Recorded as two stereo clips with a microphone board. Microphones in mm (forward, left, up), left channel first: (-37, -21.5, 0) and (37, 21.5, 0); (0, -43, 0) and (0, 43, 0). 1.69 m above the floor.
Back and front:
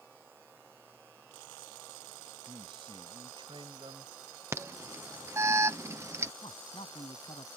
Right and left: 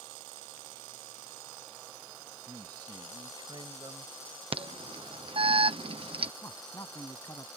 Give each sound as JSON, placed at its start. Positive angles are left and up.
{"t": 2.5, "sound": "a man speaking", "azimuth_deg": 50}
{"t": 4.5, "sound": "an alarm", "azimuth_deg": 90}
{"t": 6.4, "sound": "a man speaking", "azimuth_deg": -145}